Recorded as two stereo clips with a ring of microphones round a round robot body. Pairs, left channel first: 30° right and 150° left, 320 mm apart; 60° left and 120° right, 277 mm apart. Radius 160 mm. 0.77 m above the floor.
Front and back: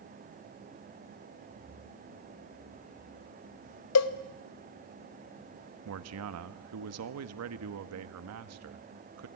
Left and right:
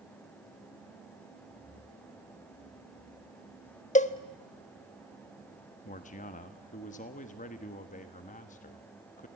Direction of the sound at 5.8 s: 120° left.